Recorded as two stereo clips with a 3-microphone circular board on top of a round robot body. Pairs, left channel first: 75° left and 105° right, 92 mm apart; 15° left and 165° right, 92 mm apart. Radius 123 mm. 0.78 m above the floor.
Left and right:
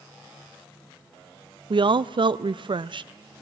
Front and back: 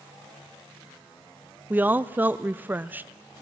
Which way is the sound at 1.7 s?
100° right.